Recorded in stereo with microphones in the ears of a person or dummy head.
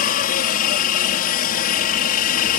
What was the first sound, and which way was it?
A helicopter, 45° left (ahead or behind).